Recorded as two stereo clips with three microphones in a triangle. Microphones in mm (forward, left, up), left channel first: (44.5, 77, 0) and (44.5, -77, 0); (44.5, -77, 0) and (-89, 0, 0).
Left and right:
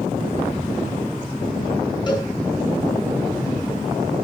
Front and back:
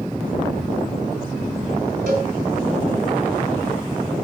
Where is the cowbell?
150° left, 4 m.